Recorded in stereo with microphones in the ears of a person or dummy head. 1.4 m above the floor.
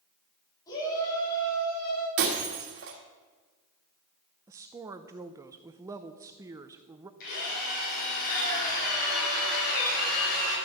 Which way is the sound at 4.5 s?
20° right (ahead or behind).